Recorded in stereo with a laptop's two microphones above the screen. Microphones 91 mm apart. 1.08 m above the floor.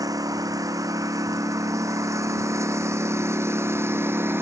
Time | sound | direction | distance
0.0 | a lawn mower | 40° right (ahead or behind) | ?